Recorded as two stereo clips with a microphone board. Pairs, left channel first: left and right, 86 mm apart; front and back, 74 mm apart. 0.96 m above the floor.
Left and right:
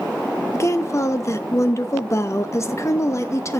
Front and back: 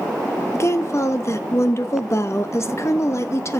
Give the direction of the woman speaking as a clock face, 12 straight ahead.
11 o'clock.